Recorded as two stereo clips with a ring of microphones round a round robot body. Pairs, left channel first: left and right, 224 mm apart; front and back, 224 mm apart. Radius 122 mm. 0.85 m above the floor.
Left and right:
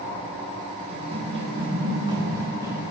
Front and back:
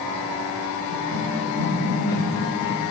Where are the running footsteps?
155° right, 7 m; by 2.8 s 165° right, 7.5 m.